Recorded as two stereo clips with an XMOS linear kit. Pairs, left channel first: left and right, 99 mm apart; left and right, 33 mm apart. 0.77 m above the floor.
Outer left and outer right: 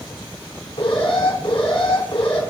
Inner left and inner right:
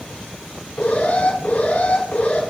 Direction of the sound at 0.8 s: 75° left (ahead or behind).